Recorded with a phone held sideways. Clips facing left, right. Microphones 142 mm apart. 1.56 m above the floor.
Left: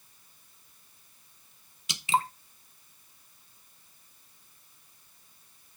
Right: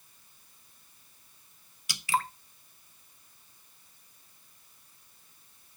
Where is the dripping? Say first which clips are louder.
Left 2 dB; 20° left (ahead or behind), 0.7 m.